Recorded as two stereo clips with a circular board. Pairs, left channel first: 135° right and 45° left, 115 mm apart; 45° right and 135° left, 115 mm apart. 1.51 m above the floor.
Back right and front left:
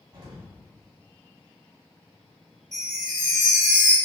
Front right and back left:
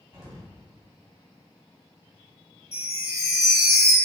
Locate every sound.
0.1 s an explosion: 75° left, 2 m
2.7 s a chime: 45° right, 1.9 m